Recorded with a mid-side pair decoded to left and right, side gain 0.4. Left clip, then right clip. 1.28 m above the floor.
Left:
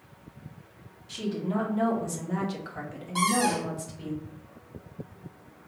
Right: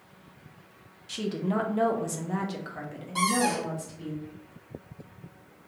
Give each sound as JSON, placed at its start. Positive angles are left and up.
{"t": 1.1, "sound": "a woman speaking", "azimuth_deg": -60, "distance_m": 1.0}
{"t": 3.1, "sound": "a cupboard door", "azimuth_deg": 15, "distance_m": 1.7}